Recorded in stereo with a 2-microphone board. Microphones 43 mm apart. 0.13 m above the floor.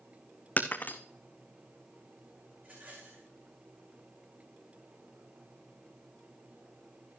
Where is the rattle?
40° right (ahead or behind), 4.5 m.